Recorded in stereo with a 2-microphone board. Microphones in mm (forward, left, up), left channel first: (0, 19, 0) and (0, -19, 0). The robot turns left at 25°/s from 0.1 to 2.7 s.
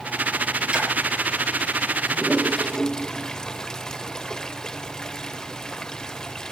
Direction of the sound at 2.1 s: Centre (ahead or behind).